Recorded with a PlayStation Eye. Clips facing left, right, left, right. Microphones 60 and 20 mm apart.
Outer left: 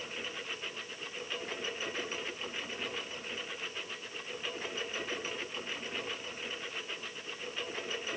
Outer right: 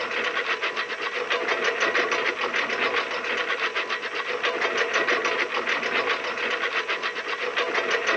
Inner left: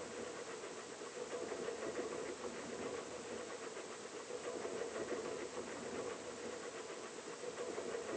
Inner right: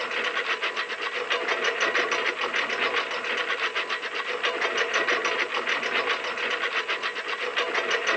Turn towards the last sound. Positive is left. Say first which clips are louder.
# outer right 15 dB, inner right 20 dB
turn(degrees=-85)